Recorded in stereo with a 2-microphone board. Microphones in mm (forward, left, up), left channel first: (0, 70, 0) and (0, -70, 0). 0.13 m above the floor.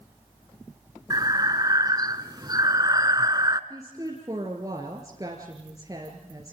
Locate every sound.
1.1 s breathing: 30° right (ahead or behind), 0.7 m
3.7 s a woman speaking: 25° right (ahead or behind), 2 m